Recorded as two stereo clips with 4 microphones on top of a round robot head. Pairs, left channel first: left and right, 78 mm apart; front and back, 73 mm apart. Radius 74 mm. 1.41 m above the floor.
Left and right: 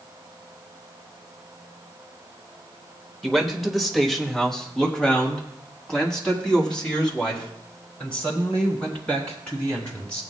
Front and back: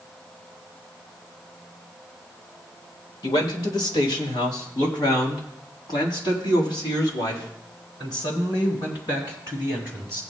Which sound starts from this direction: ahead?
A man speaking, at 3.2 s.